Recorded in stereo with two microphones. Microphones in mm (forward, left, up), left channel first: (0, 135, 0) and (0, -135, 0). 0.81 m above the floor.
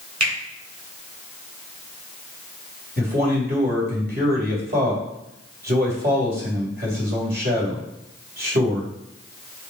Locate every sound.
0.2 s a finger snap: 85° right, 3.5 m
3.0 s a man speaking: 40° right (ahead or behind), 4 m